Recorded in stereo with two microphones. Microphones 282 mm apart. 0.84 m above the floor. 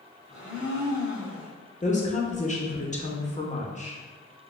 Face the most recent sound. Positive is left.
turn(degrees=25)  # may be behind; listen again after turning